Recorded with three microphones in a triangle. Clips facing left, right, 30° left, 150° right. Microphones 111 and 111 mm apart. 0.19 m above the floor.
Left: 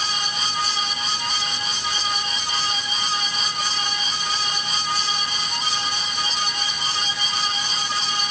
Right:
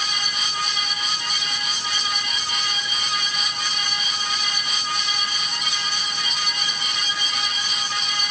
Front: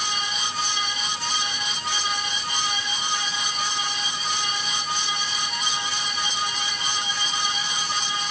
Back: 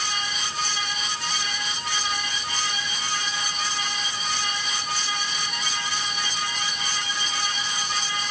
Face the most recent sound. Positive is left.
No sound to turn to.